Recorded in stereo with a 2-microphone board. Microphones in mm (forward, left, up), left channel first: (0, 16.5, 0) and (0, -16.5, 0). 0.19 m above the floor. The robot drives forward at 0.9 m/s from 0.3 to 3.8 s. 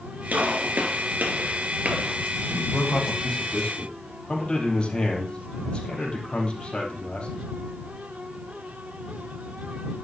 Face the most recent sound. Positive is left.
turn(degrees=30)  # may be behind; listen again after turning